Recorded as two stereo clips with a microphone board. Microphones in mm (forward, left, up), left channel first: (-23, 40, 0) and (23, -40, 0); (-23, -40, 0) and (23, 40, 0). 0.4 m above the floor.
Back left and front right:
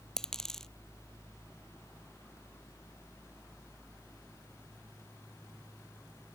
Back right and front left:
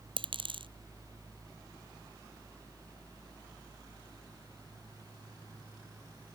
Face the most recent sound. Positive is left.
turn(degrees=35)